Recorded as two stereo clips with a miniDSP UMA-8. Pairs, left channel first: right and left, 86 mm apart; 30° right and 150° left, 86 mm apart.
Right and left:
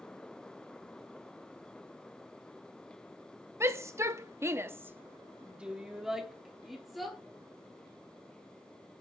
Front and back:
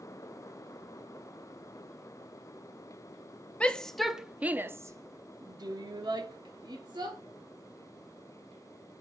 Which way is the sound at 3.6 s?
45° left.